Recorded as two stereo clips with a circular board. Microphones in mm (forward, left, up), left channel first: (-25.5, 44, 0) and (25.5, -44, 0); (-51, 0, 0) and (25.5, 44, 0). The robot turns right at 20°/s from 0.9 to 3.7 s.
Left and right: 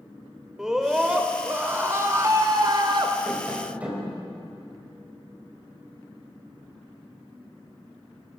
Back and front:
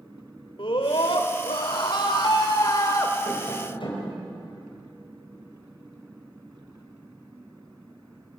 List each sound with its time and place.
0.6 s a scream: 145° right, 2 m; by 3.1 s 100° right, 2 m
3.2 s tapping: 150° right, 4.5 m; by 4.1 s 140° right, 4.5 m